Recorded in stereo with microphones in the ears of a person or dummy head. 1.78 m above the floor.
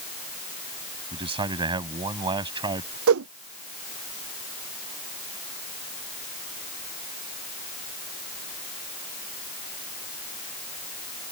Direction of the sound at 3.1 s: 80° right.